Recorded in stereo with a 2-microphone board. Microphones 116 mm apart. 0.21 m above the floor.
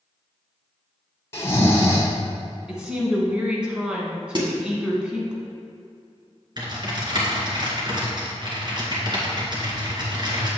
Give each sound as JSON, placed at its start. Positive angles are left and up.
{"t": 1.3, "sound": "snoring", "side_deg": 25, "distance_m": 1.8}
{"t": 2.7, "sound": "a woman speaking", "side_deg": -10, "distance_m": 2.0}
{"t": 4.3, "sound": "a snare drum", "side_deg": -40, "distance_m": 1.6}
{"t": 6.6, "sound": "typing on a keyboard", "side_deg": -40, "distance_m": 2.0}